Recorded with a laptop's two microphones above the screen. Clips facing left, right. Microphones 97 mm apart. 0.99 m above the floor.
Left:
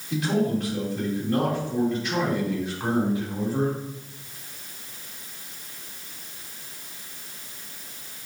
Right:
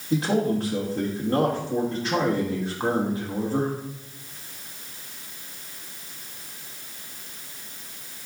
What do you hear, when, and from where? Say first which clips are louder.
0.1 s a man speaking: right 1 dB; 35° right (ahead or behind), 2.5 m